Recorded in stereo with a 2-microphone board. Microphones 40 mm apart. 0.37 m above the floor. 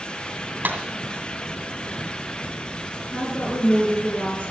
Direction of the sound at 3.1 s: 40° left (ahead or behind).